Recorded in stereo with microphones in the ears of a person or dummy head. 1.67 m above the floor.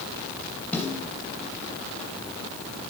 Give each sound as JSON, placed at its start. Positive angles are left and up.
{"t": 0.7, "sound": "a snare drum", "side_deg": 10, "distance_m": 3.5}